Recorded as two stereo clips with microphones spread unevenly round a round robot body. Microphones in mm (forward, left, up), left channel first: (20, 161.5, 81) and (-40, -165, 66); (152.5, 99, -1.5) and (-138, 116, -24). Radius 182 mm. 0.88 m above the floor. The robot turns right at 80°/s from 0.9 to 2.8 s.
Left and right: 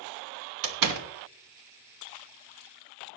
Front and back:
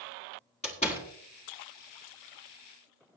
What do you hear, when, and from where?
0.6 s a door slam: 80° right, 1.4 m; by 1.1 s 65° right, 1.4 m